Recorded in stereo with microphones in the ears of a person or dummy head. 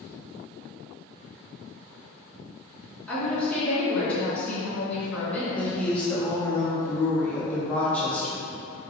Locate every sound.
3.1 s a woman speaking: 5° left (ahead or behind), 1.9 m
5.6 s a woman speaking: 5° left (ahead or behind), 0.8 m